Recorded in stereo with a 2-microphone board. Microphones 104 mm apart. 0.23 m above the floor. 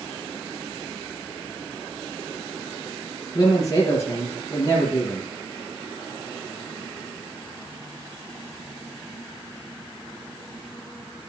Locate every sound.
3.4 s a man speaking: 30° left (ahead or behind), 3 m